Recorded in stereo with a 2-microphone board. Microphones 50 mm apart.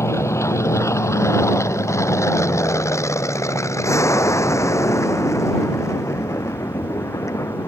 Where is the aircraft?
65° left (ahead or behind); by 7.7 s 75° left (ahead or behind).